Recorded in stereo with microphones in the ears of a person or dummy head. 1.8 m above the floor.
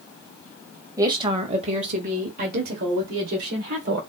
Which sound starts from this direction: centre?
A woman speaking, at 1.0 s.